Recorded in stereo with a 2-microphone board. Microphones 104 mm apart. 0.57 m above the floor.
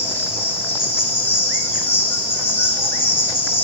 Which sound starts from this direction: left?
An insect, at 0.0 s.